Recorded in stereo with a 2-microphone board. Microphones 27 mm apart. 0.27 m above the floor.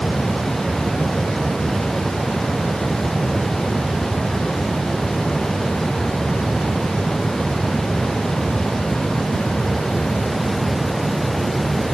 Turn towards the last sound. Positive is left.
No sound to turn to.